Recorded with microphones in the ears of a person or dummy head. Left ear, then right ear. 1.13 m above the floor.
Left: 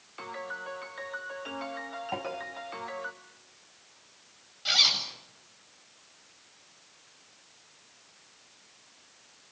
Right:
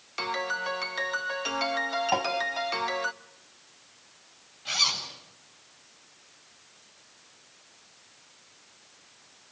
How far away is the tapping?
About 4 m.